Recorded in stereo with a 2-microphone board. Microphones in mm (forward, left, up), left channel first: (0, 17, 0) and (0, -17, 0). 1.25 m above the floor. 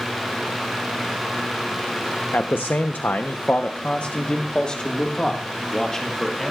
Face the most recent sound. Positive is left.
turn(degrees=15)  # may be behind; listen again after turning